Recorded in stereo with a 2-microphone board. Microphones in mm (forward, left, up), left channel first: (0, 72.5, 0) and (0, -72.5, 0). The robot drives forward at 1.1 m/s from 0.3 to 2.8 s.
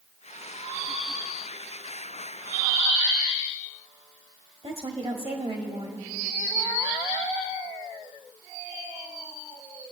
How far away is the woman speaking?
About 1.5 m.